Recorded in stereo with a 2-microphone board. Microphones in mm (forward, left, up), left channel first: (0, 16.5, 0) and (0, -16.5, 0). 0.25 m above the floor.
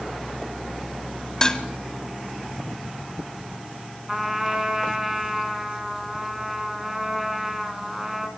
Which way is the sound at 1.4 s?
20° left (ahead or behind).